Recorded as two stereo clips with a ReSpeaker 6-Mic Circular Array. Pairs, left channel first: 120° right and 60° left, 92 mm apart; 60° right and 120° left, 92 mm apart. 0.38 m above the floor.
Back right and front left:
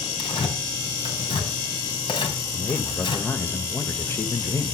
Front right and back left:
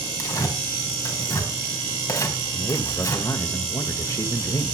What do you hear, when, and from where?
0.2 s tearing paper: 110° right, 3 m
2.5 s a man speaking: 70° right, 1.3 m